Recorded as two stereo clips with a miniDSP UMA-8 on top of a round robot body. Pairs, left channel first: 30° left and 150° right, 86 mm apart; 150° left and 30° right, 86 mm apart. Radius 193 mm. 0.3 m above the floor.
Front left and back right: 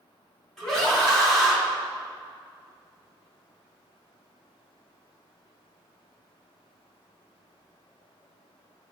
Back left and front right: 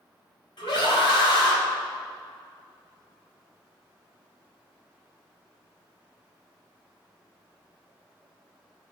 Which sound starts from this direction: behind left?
A scream, at 0.6 s.